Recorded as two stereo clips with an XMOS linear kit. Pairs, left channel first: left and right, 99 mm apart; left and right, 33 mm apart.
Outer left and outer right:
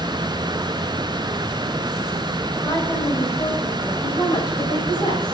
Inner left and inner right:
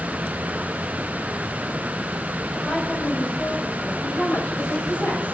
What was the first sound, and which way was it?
A woman speaking, 30° left (ahead or behind).